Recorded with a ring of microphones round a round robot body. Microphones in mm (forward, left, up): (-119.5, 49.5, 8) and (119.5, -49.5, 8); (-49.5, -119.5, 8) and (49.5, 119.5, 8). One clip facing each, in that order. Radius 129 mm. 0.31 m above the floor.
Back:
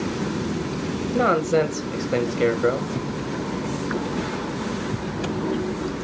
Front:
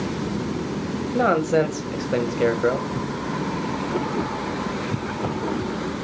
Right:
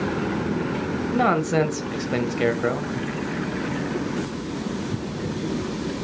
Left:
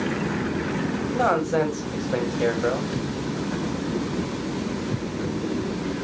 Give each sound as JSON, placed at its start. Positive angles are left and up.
{"t": 1.1, "sound": "a man speaking", "azimuth_deg": -120, "distance_m": 1.3}